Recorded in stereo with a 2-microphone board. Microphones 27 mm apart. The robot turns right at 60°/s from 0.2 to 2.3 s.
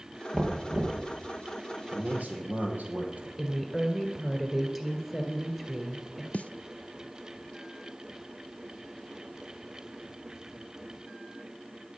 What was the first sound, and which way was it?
Knocking, 165° left.